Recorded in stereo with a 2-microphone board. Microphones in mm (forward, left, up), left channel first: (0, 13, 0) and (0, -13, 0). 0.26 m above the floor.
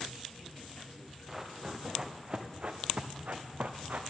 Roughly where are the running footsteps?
Centre.